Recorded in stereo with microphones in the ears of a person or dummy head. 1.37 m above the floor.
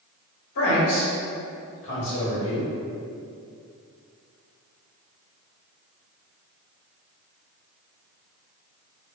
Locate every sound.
0.6 s a man speaking: 60° left (ahead or behind), 1.3 m